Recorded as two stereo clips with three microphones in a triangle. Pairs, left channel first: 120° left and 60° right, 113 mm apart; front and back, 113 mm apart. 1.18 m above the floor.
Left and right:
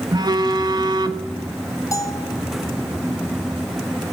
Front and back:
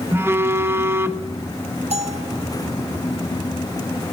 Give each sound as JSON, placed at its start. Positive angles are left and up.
{"t": 0.1, "sound": "a phone buzzing", "azimuth_deg": -110, "distance_m": 1.6}
{"t": 1.9, "sound": "a bell", "azimuth_deg": 180, "distance_m": 3.0}